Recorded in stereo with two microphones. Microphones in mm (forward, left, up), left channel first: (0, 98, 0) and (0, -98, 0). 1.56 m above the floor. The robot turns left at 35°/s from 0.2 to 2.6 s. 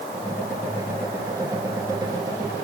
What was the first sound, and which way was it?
Only background noise.